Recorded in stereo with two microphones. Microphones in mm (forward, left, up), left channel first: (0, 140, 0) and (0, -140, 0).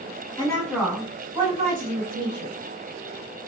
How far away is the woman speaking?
About 1.3 m.